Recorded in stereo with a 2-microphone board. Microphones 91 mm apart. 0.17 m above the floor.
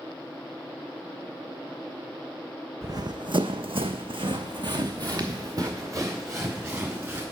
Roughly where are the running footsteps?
Right.